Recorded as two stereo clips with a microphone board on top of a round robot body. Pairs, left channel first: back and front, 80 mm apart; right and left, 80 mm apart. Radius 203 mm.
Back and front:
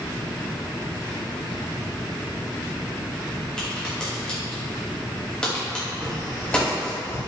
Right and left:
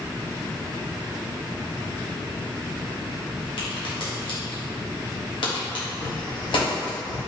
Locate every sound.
3.6 s a crack: 100° right, 1.2 m
6.0 s tapping: 125° right, 1.5 m